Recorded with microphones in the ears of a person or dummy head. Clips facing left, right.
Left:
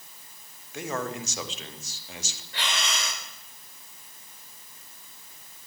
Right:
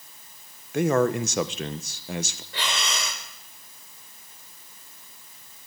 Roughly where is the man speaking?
Right.